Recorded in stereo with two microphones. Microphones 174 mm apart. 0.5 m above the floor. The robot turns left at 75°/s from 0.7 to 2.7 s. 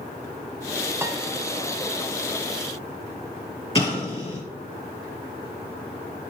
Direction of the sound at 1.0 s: 15° right (ahead or behind).